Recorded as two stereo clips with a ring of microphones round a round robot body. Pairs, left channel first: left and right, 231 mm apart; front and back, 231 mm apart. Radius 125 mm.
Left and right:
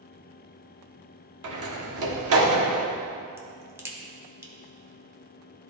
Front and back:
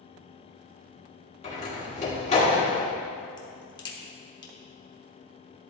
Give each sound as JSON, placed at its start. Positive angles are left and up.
{"t": 1.4, "sound": "a door slam", "azimuth_deg": -65, "distance_m": 1.4}
{"t": 3.4, "sound": "a crack", "azimuth_deg": -30, "distance_m": 0.9}